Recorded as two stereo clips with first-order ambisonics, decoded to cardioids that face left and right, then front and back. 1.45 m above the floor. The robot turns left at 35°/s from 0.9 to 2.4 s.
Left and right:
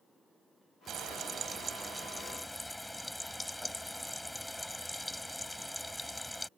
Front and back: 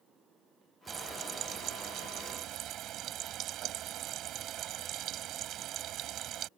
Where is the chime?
No chime in this recording.